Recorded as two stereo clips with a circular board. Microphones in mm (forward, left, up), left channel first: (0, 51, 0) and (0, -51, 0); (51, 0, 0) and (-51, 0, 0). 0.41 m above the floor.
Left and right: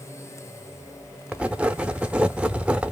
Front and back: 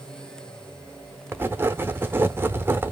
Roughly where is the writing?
Behind right.